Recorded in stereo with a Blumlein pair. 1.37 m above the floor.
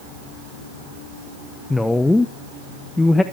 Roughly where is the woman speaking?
Ahead.